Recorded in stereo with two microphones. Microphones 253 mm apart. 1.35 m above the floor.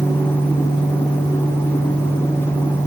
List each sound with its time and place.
Only background noise.